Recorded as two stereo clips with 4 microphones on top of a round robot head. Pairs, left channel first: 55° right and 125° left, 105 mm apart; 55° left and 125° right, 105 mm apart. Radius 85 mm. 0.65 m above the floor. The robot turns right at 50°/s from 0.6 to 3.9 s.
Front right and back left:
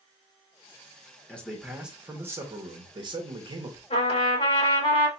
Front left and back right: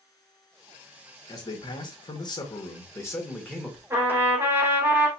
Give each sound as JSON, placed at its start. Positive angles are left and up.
{"t": 1.3, "sound": "a man speaking", "azimuth_deg": 20, "distance_m": 1.4}
{"t": 3.9, "sound": "a trumpet", "azimuth_deg": -55, "distance_m": 3.5}